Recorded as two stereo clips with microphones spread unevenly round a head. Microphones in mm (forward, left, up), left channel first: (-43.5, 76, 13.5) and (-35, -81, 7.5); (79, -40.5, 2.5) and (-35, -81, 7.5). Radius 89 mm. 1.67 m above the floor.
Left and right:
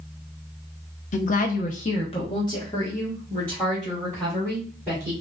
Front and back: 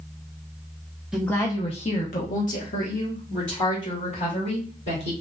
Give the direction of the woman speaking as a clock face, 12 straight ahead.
8 o'clock.